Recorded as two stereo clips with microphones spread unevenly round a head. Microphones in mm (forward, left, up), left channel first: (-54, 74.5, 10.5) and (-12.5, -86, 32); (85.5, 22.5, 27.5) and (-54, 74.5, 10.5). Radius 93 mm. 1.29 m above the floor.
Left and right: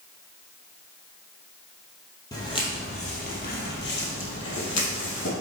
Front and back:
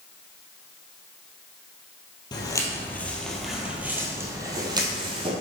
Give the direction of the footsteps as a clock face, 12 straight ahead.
11 o'clock.